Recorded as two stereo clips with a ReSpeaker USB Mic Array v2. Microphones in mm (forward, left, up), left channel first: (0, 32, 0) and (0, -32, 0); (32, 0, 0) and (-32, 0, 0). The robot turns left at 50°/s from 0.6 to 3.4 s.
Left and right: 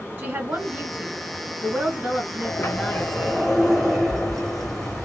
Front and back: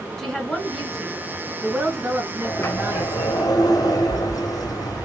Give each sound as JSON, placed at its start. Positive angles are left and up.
{"t": 0.2, "sound": "a woman speaking", "azimuth_deg": -75, "distance_m": 1.6}
{"t": 2.4, "sound": "a sliding door", "azimuth_deg": 55, "distance_m": 1.4}